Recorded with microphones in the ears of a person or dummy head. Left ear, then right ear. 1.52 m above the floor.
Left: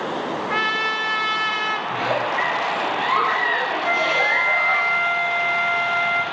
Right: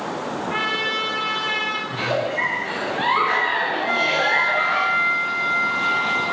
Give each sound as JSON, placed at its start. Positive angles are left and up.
{"t": 0.5, "sound": "a trumpet", "side_deg": 35, "distance_m": 0.8}
{"t": 1.9, "sound": "a giggle", "side_deg": 20, "distance_m": 2.5}
{"t": 3.8, "sound": "a flute", "side_deg": 50, "distance_m": 8.5}